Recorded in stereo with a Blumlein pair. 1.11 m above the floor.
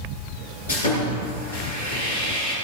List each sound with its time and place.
0.7 s sawing: 65° left, 5.5 m